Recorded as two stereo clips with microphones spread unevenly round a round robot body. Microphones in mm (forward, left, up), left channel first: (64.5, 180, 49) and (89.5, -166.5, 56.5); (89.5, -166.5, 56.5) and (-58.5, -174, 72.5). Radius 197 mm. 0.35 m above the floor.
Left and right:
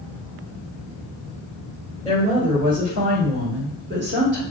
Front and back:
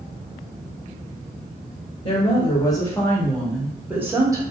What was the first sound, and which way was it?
A woman speaking, 20° right.